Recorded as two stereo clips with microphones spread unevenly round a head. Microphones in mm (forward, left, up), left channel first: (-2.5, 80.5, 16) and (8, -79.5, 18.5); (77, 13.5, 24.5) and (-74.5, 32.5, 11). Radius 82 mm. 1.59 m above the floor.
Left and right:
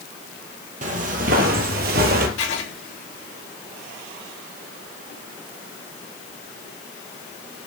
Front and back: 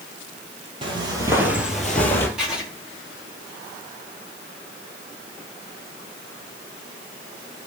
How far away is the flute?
I don't hear a flute.